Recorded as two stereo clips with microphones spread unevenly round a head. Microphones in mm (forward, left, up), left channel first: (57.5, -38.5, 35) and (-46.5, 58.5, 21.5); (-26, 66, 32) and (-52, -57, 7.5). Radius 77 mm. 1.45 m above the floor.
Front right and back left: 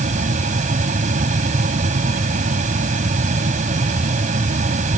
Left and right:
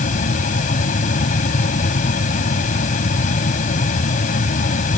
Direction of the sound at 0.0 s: 95° left.